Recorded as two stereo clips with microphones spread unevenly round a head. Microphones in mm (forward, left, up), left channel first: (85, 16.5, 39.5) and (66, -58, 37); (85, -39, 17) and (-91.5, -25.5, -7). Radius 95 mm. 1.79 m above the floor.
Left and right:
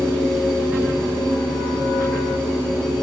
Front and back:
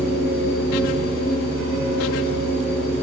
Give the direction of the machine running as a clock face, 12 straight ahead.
12 o'clock.